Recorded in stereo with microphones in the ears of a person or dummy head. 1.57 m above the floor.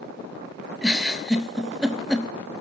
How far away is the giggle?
About 0.6 m.